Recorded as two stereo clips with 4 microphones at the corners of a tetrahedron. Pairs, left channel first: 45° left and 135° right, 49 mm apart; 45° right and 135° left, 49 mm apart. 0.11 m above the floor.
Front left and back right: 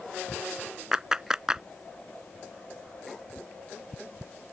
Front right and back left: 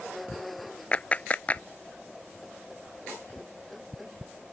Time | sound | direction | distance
0.9 | a clap | 70° right | ?